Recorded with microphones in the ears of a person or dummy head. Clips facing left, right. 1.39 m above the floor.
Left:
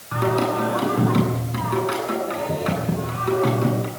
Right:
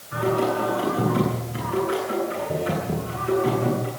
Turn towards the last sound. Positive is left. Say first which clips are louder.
# left 1 dB
turn(degrees=70)  # may be behind; listen again after turning